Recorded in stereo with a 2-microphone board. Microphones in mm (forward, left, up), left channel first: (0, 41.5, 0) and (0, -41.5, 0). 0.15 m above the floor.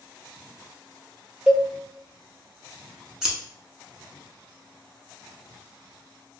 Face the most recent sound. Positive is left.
turn(degrees=-5)  # may be behind; listen again after turning